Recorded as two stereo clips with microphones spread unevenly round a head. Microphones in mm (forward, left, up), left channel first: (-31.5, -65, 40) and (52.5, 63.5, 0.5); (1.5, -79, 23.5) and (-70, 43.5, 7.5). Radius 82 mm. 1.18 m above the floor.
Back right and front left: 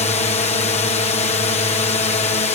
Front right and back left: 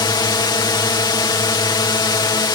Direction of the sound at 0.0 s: 95° right.